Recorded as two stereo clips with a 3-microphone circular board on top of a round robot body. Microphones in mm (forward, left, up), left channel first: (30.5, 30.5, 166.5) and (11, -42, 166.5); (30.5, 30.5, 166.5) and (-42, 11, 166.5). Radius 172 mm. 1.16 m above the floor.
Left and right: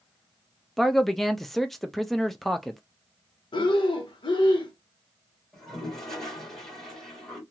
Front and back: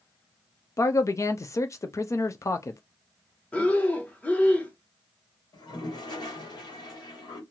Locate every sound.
0.8 s a man speaking: 10° right, 0.5 m
3.5 s breathing: 90° left, 0.9 m
5.5 s a toilet flushing: 5° right, 1.3 m